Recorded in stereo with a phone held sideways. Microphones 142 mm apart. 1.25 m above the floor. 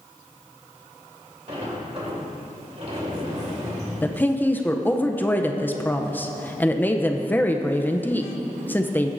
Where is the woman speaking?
15° left (ahead or behind), 0.6 m.